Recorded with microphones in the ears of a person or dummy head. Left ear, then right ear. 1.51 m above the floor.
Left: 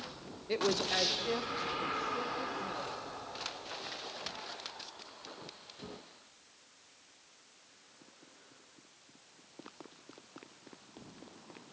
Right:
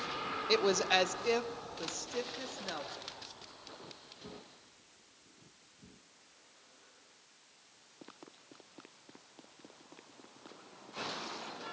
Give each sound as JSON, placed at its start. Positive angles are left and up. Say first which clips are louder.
{"t": 0.5, "sound": "a woman speaking", "louder": "right 3 dB", "side_deg": -40, "distance_m": 0.9}